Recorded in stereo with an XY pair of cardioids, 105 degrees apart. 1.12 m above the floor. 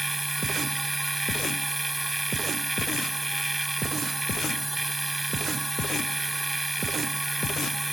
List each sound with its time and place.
0.0 s a machine running: 15° right